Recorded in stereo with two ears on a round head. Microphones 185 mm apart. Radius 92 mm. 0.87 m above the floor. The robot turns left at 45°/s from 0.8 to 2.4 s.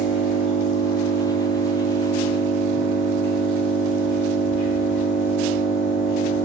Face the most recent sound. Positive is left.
turn(degrees=15)